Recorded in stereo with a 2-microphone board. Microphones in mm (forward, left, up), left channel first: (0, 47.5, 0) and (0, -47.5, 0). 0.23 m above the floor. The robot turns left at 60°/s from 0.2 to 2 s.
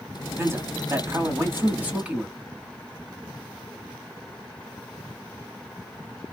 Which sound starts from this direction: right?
A man speaking, at 0.4 s.